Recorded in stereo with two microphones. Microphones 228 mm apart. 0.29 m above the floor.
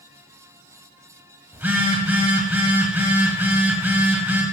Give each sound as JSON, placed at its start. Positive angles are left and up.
{"t": 1.5, "sound": "a phone buzzing", "side_deg": -10, "distance_m": 1.4}